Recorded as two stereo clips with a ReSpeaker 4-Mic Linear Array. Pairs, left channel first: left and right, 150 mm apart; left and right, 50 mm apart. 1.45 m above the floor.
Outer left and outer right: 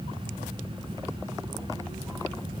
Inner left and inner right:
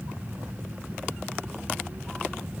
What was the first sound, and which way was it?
Only background noise.